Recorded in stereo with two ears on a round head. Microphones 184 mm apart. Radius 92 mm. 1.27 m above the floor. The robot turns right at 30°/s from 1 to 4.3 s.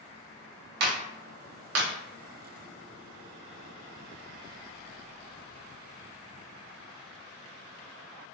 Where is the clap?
50° right (ahead or behind), 0.7 m; by 1.9 s 75° right (ahead or behind), 0.7 m.